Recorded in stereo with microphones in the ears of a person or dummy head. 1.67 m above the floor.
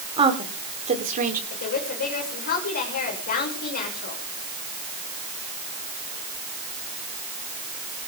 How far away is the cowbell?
No cowbell in this recording.